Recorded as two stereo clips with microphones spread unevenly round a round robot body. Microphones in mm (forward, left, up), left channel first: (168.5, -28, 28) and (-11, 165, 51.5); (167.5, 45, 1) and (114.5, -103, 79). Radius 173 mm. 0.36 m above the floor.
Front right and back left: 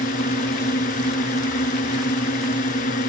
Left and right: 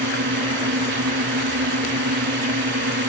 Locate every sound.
0.0 s a drone: 115° right